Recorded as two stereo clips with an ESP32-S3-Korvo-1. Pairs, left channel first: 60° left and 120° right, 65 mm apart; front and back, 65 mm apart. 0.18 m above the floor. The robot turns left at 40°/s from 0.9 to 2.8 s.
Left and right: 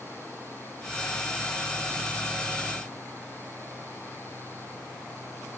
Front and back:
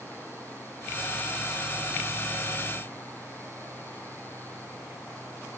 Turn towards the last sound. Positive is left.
No sound to turn to.